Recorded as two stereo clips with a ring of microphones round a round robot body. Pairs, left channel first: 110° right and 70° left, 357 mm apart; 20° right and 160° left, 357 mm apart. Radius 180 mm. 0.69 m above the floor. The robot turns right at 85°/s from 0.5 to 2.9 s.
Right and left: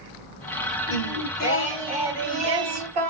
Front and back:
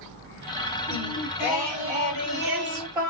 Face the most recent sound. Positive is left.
turn(degrees=75)